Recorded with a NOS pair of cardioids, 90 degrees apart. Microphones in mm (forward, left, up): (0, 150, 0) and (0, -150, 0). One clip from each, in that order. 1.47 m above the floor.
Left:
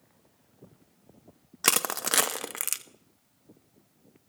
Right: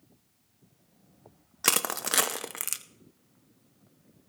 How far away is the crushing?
About 0.7 m.